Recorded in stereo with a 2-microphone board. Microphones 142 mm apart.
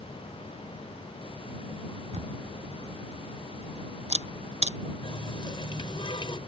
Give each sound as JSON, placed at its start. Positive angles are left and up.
{"t": 2.1, "sound": "a camera shutter", "side_deg": -50}
{"t": 5.0, "sound": "a running tap", "side_deg": 40}